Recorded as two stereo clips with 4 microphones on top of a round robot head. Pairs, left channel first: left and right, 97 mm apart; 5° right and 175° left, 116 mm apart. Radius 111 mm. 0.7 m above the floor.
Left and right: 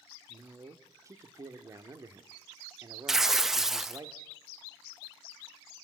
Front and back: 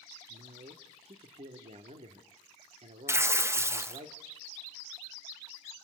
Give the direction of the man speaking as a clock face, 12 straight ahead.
5 o'clock.